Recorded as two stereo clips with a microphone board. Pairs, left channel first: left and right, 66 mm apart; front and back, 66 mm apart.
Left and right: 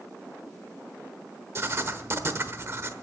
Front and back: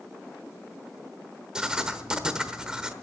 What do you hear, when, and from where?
1.6 s writing: 105° right, 1.0 m